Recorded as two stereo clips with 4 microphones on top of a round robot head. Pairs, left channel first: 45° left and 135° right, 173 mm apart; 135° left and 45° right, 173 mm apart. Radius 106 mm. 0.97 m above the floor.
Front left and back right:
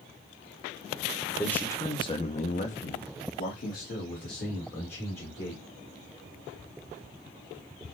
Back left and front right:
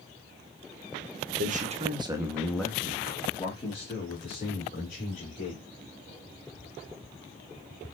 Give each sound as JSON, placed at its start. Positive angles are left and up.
{"t": 1.4, "sound": "a man speaking", "azimuth_deg": -35, "distance_m": 1.2}